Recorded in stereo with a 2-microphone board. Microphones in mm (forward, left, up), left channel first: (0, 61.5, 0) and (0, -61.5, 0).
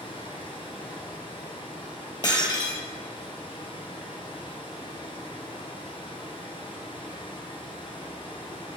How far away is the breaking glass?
About 1.4 m.